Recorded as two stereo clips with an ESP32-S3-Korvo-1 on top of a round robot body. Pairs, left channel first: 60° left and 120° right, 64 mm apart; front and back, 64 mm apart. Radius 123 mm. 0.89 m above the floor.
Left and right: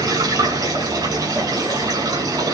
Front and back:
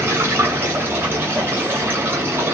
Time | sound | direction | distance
0.0 | running water | 125° right | 8 m